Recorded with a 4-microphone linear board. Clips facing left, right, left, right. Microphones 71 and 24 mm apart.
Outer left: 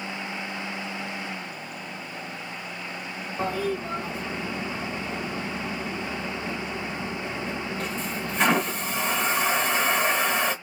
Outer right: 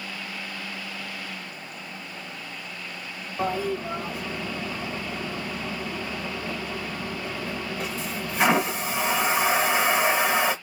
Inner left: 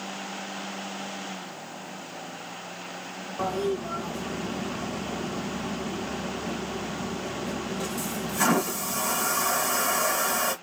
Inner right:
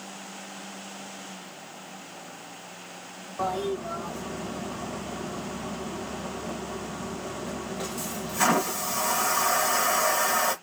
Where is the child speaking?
I don't hear a child speaking.